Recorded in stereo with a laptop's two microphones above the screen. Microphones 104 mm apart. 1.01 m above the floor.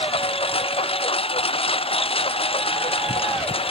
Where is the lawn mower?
75° left (ahead or behind).